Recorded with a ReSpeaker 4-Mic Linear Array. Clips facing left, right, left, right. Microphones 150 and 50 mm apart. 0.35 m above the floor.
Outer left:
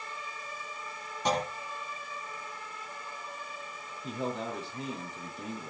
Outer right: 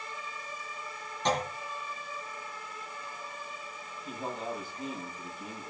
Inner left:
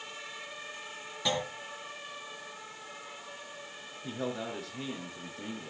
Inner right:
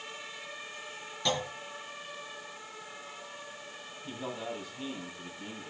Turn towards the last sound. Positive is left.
turn(degrees=75)  # may be behind; listen again after turning